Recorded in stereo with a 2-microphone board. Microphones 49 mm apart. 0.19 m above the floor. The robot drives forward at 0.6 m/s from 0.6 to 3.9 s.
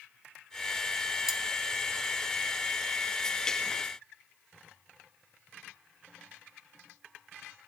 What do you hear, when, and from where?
1.3 s cutlery clinking: 10° right (ahead or behind), 0.7 m